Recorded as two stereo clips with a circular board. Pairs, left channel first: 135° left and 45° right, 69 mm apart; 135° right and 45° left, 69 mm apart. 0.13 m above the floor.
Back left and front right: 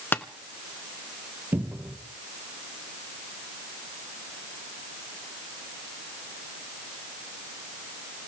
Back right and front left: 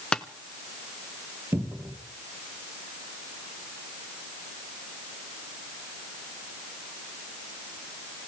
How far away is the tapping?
About 0.8 m.